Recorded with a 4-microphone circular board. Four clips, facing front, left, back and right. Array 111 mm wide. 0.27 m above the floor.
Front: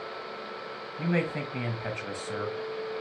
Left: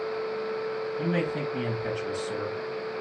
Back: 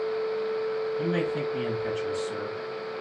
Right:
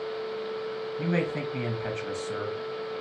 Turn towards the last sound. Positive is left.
turn(degrees=-25)